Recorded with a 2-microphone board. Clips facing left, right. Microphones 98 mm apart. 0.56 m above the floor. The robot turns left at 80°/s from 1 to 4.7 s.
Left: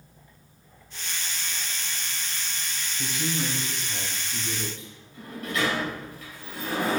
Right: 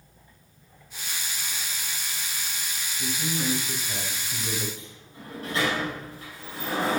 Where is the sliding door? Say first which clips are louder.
Even; 35° right (ahead or behind), 3 m.